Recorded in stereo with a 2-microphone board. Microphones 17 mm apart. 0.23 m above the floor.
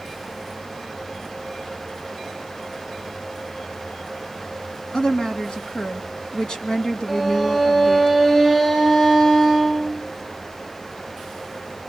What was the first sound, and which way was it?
A woman speaking, 55° left (ahead or behind).